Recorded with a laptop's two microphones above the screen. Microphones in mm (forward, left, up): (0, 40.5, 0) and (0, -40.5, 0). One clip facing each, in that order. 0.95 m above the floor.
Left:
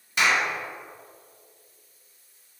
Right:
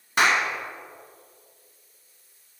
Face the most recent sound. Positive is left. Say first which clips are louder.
# right 2 dB
turn(degrees=-40)  # may be behind; listen again after turning